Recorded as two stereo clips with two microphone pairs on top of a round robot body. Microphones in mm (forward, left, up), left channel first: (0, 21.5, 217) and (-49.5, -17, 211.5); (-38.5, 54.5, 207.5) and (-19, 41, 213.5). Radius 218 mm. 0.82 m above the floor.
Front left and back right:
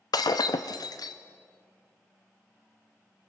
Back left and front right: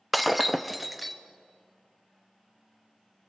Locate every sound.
0.1 s breaking glass: 50° left, 0.6 m